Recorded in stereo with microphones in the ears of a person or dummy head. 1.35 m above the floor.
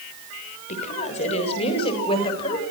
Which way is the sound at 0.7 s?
40° left (ahead or behind).